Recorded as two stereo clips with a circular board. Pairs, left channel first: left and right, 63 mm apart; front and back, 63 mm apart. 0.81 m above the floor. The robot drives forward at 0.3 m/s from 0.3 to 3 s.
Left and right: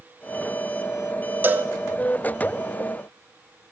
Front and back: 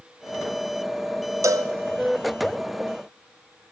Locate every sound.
1.4 s a cowbell: 150° right, 0.9 m